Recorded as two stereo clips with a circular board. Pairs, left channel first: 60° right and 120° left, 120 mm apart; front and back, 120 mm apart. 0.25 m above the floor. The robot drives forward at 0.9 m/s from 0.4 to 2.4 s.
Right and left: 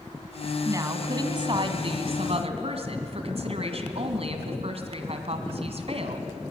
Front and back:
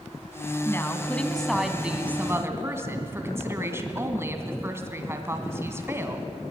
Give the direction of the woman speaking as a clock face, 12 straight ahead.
10 o'clock.